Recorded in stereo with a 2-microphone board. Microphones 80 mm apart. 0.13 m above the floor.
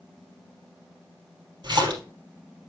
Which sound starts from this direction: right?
A splash, at 1.6 s.